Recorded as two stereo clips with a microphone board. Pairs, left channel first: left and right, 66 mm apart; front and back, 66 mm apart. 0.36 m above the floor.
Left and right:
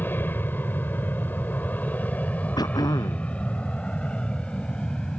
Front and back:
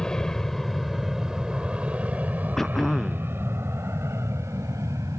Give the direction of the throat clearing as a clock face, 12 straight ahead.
9 o'clock.